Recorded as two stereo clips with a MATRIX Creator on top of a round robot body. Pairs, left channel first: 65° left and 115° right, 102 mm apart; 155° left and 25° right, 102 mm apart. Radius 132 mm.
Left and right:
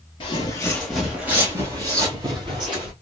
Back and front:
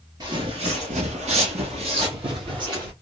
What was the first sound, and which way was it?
Footsteps, 30° left.